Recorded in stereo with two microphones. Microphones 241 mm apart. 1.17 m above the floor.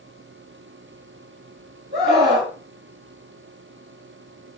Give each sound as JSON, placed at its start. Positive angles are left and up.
{"t": 1.9, "sound": "a scream", "side_deg": -40, "distance_m": 2.0}